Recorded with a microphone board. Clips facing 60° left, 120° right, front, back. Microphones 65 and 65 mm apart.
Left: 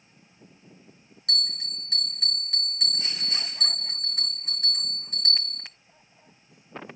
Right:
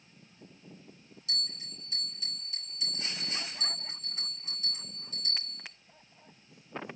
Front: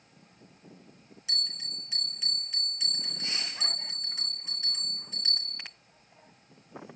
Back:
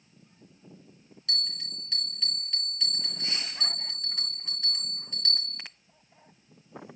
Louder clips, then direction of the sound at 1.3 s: Left 8 dB, back 2 dB; 80° left.